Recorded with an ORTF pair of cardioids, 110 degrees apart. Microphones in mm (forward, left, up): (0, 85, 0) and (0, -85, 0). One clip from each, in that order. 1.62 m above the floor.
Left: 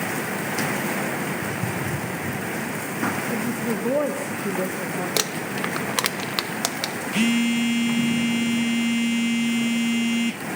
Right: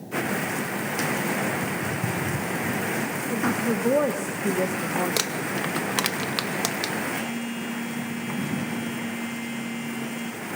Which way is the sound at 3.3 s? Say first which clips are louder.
Right 1 dB; straight ahead.